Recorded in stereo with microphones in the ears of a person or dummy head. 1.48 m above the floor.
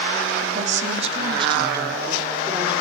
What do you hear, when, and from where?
0.4 s a woman speaking: 50° right (ahead or behind), 3.5 m; by 2.7 s 10° right (ahead or behind), 4.5 m